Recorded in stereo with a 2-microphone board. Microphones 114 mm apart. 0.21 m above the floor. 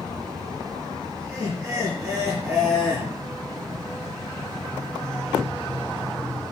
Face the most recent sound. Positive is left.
turn(degrees=-10)  # may be behind; listen again after turning